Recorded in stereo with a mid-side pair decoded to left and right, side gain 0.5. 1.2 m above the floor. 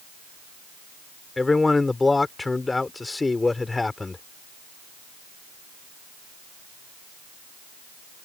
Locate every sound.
1.4 s a man speaking: 20° left